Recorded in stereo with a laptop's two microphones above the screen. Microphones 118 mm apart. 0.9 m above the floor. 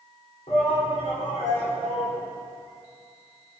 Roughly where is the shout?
Left.